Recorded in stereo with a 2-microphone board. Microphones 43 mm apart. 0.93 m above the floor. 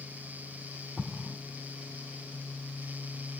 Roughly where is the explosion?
Centre.